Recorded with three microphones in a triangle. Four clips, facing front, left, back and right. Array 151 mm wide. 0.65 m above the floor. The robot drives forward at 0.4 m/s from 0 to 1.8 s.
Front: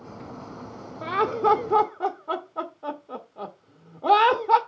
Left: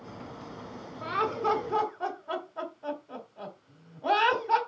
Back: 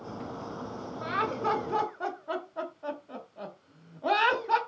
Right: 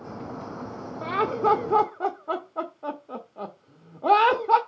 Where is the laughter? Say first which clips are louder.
Right 5 dB, front 7 dB; 45° right, 1.2 m; by 4.6 s 60° right, 1.1 m.